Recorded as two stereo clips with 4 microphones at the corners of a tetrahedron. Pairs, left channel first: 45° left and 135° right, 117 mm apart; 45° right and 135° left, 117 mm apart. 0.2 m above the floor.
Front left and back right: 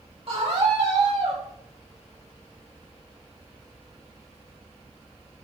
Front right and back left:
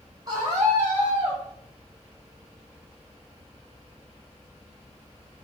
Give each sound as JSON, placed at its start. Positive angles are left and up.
{"t": 0.3, "sound": "a scream", "azimuth_deg": -170, "distance_m": 7.5}